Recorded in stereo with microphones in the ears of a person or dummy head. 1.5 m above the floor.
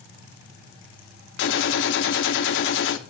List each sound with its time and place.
1.4 s a gunshot: 55° left (ahead or behind), 0.7 m